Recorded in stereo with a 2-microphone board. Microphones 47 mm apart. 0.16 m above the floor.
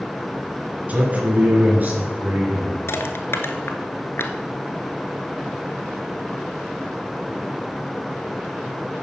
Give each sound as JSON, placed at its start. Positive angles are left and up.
{"t": 0.9, "sound": "a man speaking", "side_deg": -35, "distance_m": 2.5}
{"t": 2.9, "sound": "crushing", "side_deg": 60, "distance_m": 1.1}